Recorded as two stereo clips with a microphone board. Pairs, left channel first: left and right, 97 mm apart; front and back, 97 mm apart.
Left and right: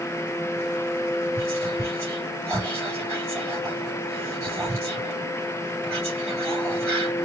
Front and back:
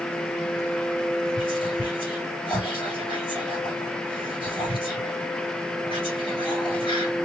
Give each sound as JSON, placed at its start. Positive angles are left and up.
{"t": 1.4, "sound": "whispering", "azimuth_deg": -20, "distance_m": 4.0}